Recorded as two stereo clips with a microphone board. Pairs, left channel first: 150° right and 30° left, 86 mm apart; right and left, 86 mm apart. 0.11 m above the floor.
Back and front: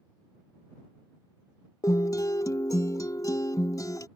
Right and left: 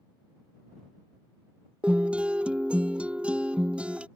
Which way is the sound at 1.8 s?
165° left.